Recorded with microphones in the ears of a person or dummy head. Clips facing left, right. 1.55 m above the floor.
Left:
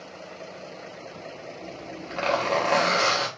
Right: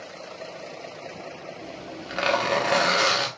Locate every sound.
1.6 s a zipper: 15° right (ahead or behind), 1.0 m